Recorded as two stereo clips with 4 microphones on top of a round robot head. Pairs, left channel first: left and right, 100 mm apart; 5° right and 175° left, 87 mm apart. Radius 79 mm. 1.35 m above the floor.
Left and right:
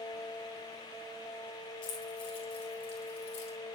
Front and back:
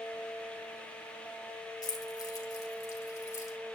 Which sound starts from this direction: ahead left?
Keys jangling, at 1.8 s.